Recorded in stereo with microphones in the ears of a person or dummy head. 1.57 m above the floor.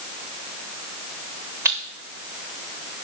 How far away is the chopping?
I don't hear chopping.